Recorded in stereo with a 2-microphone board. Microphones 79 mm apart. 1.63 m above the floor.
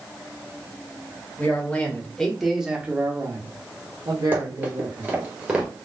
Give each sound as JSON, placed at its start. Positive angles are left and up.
{"t": 1.4, "sound": "a man speaking", "side_deg": 20, "distance_m": 1.8}
{"t": 4.3, "sound": "running footsteps", "side_deg": -25, "distance_m": 1.9}